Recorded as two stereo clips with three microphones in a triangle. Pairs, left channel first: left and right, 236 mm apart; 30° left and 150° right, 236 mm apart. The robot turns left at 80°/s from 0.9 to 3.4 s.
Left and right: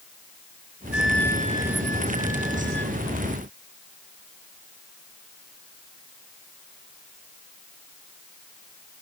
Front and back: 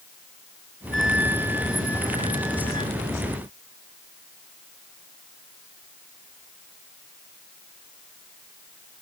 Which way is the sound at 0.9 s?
110° right.